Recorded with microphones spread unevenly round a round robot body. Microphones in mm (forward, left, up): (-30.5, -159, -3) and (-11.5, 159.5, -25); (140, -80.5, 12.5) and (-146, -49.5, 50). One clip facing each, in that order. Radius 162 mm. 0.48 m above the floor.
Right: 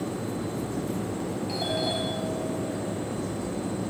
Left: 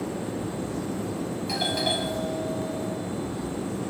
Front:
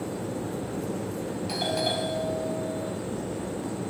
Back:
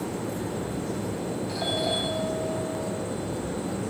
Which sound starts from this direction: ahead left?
A doorbell, at 1.5 s.